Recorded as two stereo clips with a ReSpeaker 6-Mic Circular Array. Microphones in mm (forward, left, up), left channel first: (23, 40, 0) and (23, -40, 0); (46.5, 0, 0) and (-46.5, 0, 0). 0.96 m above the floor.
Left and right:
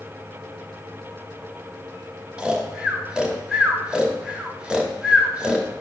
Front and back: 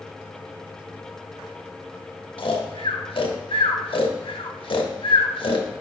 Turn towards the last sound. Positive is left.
turn(degrees=-10)